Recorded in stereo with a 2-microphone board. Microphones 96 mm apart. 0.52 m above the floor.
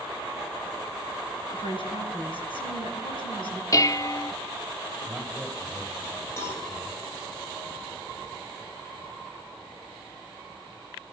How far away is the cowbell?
About 4 m.